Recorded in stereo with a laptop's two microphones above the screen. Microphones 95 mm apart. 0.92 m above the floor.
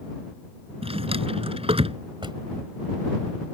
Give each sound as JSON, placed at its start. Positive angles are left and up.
{"t": 0.8, "sound": "a drawer", "side_deg": -90}
{"t": 2.2, "sound": "a drawer", "side_deg": -60}